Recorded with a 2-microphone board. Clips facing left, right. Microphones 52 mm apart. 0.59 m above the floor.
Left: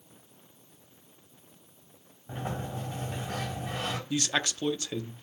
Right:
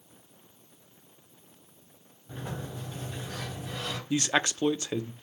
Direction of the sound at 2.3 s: 45° left (ahead or behind).